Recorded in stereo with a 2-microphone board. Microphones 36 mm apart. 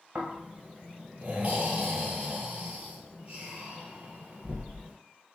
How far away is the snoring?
About 1.1 m.